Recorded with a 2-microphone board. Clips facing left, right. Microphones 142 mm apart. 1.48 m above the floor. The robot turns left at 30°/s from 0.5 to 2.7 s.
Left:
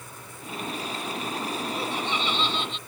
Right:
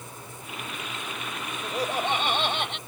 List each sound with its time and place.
1.6 s laughter: 35° right; by 2.8 s 70° right